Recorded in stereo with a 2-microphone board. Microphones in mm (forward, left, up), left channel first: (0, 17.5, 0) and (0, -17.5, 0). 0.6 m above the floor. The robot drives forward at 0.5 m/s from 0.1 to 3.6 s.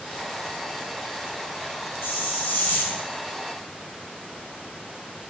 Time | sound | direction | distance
2.0 | a hiss | 75° left (ahead or behind) | 2.0 m